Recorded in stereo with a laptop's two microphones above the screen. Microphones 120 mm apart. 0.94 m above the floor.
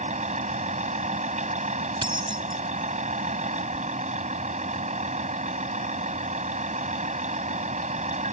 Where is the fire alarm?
No fire alarm in this recording.